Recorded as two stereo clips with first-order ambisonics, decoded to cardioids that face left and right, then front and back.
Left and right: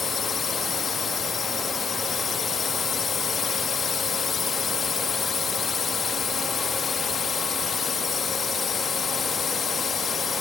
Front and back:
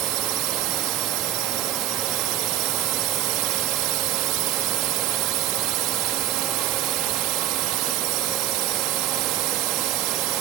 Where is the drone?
155° left.